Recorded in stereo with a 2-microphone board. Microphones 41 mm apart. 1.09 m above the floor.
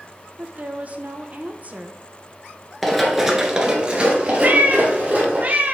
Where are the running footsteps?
Centre (ahead or behind), 1.1 m; by 5.4 s 30° right (ahead or behind), 2.5 m.